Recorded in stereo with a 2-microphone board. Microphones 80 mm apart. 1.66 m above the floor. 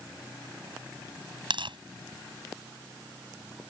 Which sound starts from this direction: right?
Tearing paper, at 1.5 s.